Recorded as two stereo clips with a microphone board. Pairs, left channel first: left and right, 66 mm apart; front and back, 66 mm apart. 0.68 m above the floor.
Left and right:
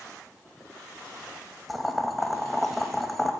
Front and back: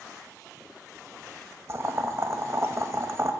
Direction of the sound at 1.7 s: 175° right.